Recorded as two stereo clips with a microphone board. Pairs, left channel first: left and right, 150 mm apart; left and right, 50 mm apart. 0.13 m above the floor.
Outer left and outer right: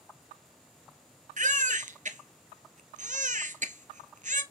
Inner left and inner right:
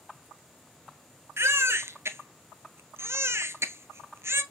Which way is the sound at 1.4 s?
60° right (ahead or behind).